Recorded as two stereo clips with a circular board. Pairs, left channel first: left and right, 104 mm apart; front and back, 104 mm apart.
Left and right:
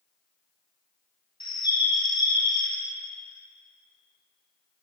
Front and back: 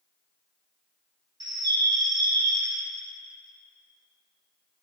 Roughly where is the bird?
Behind left.